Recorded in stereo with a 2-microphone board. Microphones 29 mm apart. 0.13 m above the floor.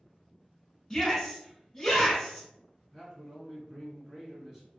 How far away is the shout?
About 1.0 m.